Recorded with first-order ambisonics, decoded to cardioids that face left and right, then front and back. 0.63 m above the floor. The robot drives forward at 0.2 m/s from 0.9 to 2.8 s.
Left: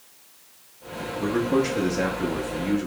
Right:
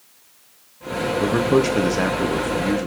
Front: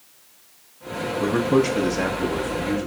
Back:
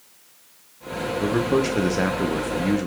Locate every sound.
1.2 s a man speaking: 80° right, 0.5 m; by 2.9 s 140° right, 0.6 m